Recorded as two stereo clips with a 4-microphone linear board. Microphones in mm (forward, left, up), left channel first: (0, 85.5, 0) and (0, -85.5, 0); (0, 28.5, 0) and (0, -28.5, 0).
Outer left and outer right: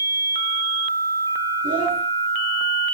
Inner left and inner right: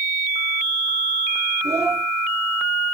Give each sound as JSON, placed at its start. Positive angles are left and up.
{"t": 1.6, "sound": "a child speaking", "side_deg": -55, "distance_m": 5.5}